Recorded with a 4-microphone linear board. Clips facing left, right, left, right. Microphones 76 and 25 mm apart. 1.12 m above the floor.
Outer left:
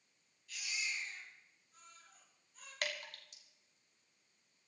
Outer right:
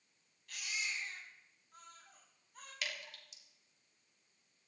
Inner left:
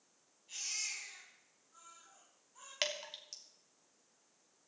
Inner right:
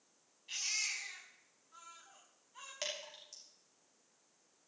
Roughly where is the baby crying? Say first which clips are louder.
Outer right 1 dB, inner right 4 dB; right.